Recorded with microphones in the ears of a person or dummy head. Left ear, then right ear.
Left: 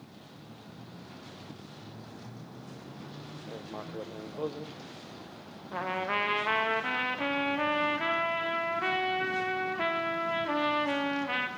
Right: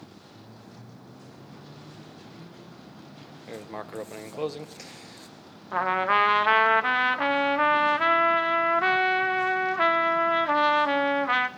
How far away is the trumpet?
About 0.8 m.